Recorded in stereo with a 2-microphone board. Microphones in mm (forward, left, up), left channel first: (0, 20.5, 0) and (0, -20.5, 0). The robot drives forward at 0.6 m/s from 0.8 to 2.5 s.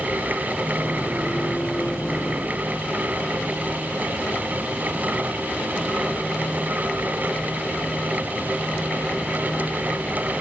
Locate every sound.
Only background noise.